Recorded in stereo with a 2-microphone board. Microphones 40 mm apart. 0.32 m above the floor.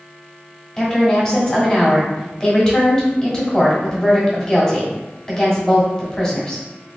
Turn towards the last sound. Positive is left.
turn(degrees=15)  # may be behind; listen again after turning